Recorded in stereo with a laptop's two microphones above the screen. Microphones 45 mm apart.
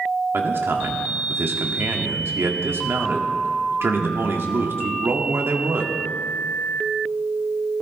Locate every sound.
0.3 s a man speaking: 70° right (ahead or behind), 1.8 m